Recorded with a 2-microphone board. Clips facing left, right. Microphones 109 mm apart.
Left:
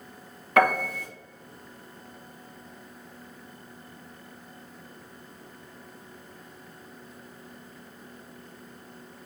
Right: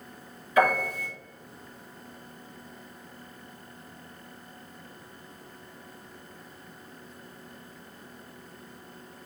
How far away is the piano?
About 2.5 m.